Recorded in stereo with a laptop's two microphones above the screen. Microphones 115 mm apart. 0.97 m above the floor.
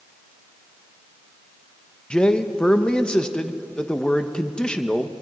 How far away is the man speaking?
About 1.1 m.